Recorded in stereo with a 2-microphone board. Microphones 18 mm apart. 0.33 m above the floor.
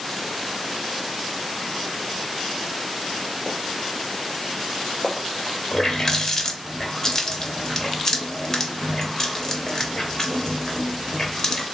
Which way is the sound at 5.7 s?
30° left (ahead or behind).